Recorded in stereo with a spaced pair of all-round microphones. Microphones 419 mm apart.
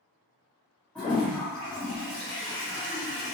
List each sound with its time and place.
0.9 s a toilet flushing: 5° left (ahead or behind), 1.1 m